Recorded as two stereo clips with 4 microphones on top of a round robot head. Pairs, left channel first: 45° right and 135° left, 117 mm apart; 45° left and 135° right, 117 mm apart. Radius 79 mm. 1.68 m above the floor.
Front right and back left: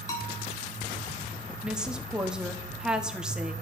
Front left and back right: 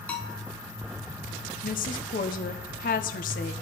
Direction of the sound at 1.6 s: 50° left.